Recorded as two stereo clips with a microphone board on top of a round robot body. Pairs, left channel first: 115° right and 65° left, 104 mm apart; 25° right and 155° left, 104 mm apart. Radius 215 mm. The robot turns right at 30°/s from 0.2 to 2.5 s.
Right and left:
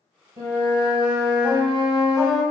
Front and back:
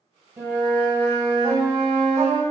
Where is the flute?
95° left, 1.5 m; by 2.4 s 160° left, 1.5 m.